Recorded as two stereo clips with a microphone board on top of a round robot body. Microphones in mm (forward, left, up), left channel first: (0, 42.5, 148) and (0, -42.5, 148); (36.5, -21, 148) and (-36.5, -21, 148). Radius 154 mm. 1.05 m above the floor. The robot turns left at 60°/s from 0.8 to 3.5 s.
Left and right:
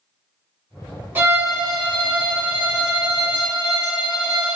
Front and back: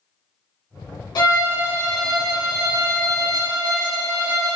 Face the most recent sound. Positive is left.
turn(degrees=-165)